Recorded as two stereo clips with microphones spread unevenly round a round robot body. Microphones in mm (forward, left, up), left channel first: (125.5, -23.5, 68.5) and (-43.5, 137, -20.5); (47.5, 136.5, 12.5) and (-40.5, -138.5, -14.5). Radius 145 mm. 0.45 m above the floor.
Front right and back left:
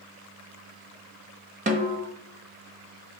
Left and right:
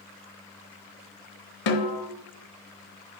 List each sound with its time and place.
1.7 s a snare drum: 85° left, 1.1 m